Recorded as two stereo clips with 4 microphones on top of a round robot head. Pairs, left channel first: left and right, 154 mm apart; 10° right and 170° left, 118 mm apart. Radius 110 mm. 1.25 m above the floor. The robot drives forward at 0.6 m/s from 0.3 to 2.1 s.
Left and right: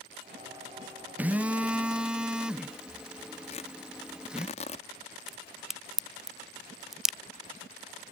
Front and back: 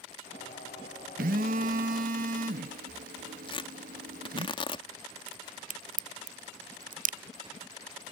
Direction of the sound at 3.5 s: 35° left.